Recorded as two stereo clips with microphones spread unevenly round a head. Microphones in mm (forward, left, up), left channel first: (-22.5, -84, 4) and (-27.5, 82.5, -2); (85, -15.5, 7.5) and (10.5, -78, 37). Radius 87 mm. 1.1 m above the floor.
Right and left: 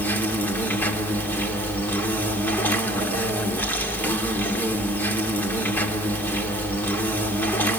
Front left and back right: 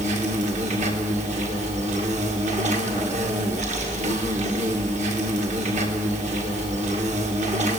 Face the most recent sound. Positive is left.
turn(degrees=-165)